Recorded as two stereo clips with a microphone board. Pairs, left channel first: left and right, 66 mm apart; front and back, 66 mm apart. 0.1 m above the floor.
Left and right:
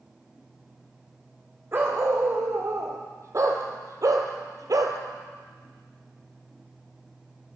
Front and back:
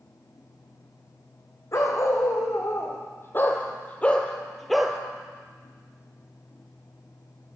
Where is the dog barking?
40° right, 2 m; by 5.0 s 100° right, 1.0 m.